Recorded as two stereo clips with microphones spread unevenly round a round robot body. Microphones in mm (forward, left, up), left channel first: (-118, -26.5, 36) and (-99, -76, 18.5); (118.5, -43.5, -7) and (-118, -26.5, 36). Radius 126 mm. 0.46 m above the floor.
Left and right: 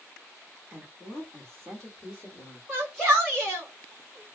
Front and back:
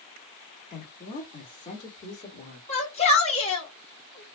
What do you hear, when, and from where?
0.7 s a woman speaking: 25° right, 1.5 m; by 2.6 s 35° left, 1.6 m
2.7 s a shout: 5° left, 1.6 m